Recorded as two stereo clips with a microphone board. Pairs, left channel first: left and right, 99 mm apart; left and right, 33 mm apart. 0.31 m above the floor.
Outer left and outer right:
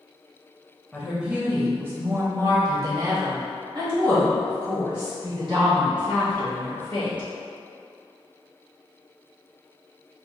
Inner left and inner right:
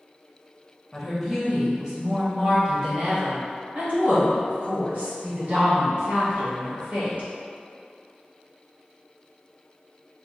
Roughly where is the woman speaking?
Centre.